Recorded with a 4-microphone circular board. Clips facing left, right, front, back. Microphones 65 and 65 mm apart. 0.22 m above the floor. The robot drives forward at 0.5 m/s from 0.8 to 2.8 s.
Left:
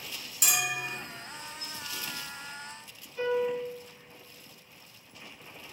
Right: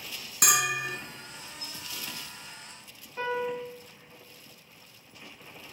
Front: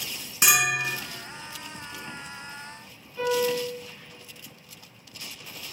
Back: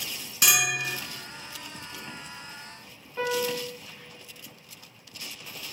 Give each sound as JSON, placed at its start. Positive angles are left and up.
{"t": 0.4, "sound": "a bell", "azimuth_deg": -65, "distance_m": 0.6}
{"t": 3.2, "sound": "a piano", "azimuth_deg": -140, "distance_m": 2.5}